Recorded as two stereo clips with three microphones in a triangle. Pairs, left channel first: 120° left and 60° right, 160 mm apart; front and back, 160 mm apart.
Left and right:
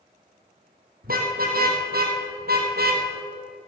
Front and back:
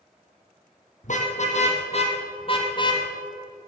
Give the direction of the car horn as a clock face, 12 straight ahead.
1 o'clock.